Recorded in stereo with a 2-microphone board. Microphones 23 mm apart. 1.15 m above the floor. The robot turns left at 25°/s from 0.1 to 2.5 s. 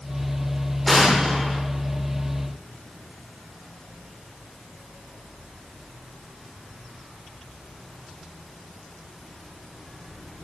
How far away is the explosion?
About 1.0 m.